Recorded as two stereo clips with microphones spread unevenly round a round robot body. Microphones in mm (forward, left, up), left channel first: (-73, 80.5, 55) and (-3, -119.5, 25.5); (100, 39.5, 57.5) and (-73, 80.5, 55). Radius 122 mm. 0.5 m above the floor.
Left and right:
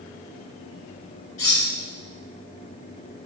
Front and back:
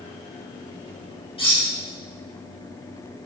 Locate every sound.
1.4 s cutlery clinking: 45° left, 1.4 m